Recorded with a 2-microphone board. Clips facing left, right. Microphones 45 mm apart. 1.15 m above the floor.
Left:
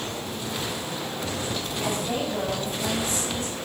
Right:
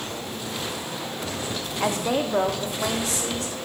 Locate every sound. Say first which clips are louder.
1.8 s a woman speaking: right 5 dB; 80° right, 1.7 m; by 3.6 s 85° right, 3.5 m